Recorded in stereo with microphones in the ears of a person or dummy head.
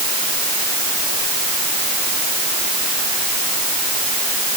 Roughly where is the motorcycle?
I don't hear a motorcycle.